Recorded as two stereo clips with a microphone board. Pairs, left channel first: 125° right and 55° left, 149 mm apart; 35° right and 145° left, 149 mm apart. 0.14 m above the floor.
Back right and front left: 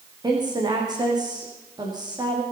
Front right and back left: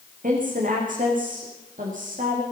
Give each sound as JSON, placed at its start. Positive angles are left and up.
{"t": 0.2, "sound": "a woman speaking", "azimuth_deg": 120, "distance_m": 6.5}